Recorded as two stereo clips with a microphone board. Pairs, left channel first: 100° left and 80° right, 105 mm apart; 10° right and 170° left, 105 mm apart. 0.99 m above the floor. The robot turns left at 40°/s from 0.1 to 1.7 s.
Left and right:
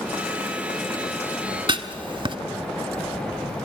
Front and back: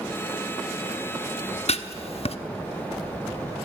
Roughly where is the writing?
Ahead right.